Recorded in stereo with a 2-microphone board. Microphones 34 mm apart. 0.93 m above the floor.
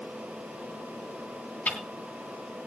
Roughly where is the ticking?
Left.